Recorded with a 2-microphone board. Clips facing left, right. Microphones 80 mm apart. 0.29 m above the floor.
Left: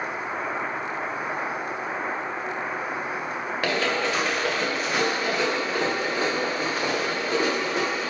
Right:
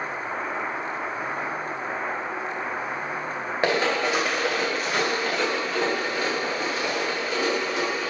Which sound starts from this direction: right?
Running footsteps, at 3.6 s.